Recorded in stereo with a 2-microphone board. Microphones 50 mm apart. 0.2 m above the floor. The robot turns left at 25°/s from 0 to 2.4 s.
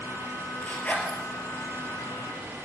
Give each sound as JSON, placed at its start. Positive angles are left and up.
{"t": 0.6, "sound": "a zipper", "side_deg": 25, "distance_m": 2.5}